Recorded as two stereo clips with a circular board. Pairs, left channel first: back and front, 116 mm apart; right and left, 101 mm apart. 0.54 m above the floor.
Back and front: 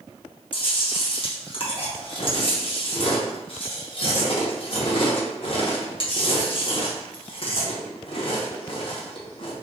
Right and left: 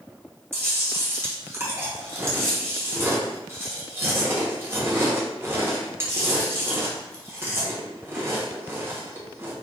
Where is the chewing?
150° left, 0.8 m.